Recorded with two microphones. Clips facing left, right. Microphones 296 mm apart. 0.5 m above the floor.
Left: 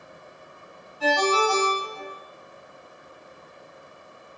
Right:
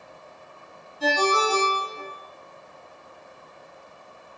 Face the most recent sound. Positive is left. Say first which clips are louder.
# left 1 dB
turn(degrees=-10)  # may be behind; listen again after turning